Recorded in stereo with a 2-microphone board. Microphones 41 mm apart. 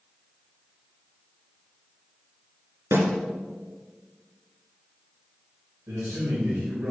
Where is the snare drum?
75° right (ahead or behind), 2.5 m.